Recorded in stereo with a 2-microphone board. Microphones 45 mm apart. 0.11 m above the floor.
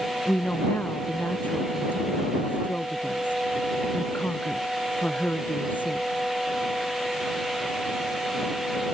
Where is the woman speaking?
40° left (ahead or behind).